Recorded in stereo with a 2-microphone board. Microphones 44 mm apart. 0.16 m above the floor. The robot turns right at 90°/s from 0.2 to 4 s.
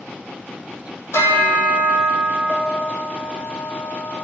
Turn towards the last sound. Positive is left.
turn(degrees=-20)